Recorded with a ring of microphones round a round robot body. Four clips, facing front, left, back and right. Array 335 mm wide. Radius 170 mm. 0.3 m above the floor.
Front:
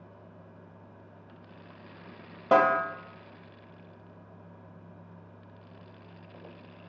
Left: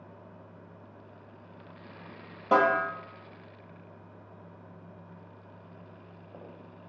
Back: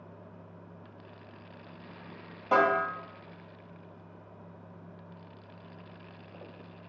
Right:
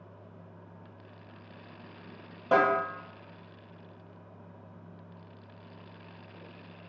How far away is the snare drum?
About 2 m.